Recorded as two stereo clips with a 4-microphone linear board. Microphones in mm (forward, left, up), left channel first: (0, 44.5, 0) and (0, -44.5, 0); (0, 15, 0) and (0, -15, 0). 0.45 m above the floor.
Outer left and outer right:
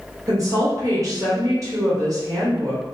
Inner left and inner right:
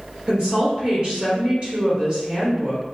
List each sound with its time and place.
0.3 s a woman speaking: 40° right (ahead or behind), 1.4 m